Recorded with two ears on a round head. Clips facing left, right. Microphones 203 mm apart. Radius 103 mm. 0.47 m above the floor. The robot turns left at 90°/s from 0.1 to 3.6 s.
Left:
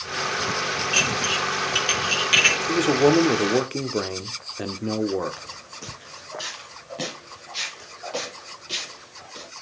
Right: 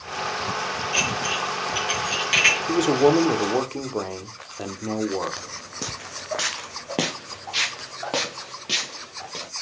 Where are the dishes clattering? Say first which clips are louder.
Even; 35° left (ahead or behind), 4 m; by 2.6 s 5° right (ahead or behind), 4 m.